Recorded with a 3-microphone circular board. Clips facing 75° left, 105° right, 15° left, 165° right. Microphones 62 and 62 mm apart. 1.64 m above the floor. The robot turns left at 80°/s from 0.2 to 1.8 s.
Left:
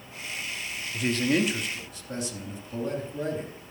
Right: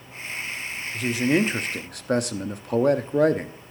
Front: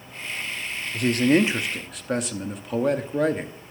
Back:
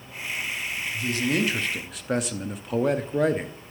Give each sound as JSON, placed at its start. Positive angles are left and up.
{"t": 0.9, "sound": "a man speaking", "azimuth_deg": -5, "distance_m": 0.8}